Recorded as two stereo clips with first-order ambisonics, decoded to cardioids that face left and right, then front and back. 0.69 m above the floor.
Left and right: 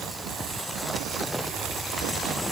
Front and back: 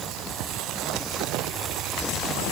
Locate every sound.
Only background noise.